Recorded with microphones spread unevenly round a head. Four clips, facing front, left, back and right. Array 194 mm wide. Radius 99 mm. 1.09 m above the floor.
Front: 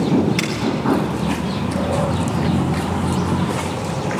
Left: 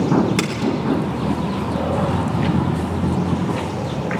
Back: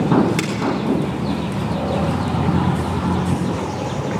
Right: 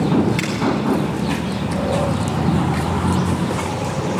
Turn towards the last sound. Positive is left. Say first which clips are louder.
# right 1 dB, even
turn(degrees=100)